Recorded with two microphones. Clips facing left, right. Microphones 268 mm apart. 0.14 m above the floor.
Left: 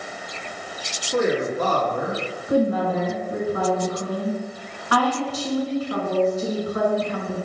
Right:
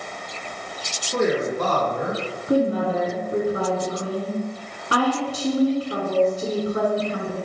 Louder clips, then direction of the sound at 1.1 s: Even; centre (ahead or behind).